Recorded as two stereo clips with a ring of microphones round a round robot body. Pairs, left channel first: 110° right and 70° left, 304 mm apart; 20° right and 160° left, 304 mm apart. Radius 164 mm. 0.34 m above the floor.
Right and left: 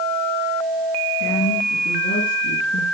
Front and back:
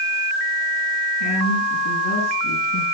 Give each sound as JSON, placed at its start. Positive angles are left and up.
{"t": 1.2, "sound": "a woman speaking", "azimuth_deg": -60, "distance_m": 7.0}